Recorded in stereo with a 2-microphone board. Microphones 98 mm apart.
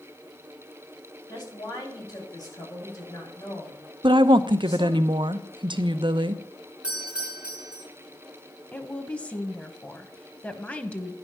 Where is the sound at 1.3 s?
40° left (ahead or behind), 5.5 m.